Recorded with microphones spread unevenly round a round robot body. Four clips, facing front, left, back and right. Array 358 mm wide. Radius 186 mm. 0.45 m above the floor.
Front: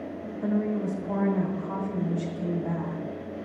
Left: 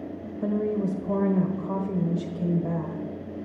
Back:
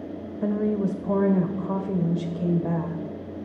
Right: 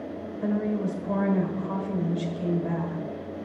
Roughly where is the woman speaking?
Behind left.